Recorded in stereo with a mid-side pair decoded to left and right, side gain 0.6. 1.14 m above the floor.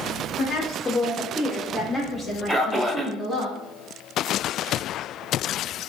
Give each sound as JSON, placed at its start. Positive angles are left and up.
{"t": 0.4, "sound": "a woman speaking", "azimuth_deg": 30, "distance_m": 0.8}
{"t": 2.5, "sound": "a man speaking", "azimuth_deg": -10, "distance_m": 0.5}